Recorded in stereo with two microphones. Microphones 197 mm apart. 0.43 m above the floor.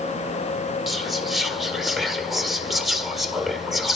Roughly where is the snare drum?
I don't hear a snare drum.